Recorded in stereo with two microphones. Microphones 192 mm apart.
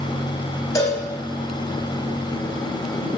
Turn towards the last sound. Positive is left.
turn(degrees=20)  # may be behind; listen again after turning